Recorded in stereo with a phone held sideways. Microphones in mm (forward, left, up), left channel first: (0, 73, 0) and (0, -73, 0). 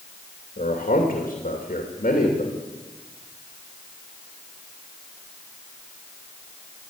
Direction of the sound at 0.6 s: 65° left (ahead or behind).